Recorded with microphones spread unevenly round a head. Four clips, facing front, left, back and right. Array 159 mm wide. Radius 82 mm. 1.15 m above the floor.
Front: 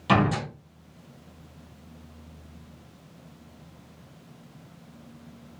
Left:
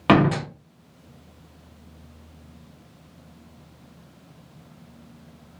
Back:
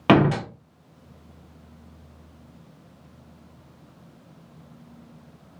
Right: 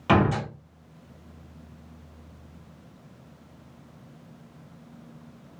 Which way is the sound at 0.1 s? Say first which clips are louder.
Left 4 dB, back 5 dB; 150° left.